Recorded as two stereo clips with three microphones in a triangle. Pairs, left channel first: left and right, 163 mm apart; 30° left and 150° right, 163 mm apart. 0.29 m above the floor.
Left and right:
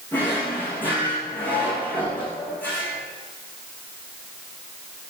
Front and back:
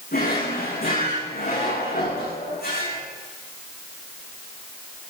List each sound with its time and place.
0.1 s a drawer: 10° left, 8.5 m